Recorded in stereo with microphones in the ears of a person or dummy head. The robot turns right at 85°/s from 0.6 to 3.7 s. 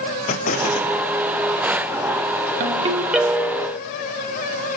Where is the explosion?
125° left, 1.2 m; by 1.0 s 160° left, 1.2 m.